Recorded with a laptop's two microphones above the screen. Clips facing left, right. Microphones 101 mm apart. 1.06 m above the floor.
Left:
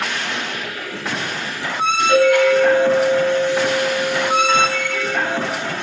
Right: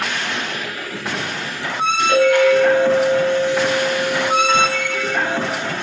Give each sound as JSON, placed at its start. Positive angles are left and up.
{"t": 2.1, "sound": "a clink", "side_deg": 10, "distance_m": 5.0}